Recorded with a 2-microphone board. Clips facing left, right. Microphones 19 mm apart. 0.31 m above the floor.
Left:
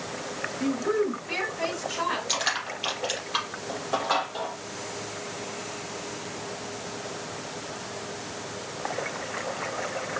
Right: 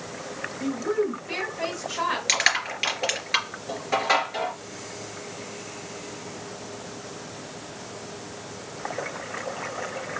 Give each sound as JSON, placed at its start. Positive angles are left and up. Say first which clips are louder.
{"t": 0.6, "sound": "a woman speaking", "louder": "even", "side_deg": 25, "distance_m": 1.2}
{"t": 2.3, "sound": "crushing", "louder": "right 5 dB", "side_deg": -65, "distance_m": 3.0}